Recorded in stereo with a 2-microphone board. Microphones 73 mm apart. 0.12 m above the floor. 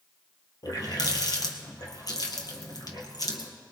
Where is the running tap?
60° left (ahead or behind), 1.8 m.